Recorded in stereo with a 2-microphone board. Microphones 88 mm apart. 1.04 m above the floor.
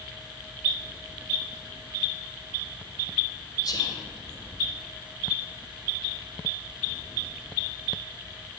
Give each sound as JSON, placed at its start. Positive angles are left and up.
{"t": 3.6, "sound": "whispering", "side_deg": 45, "distance_m": 1.0}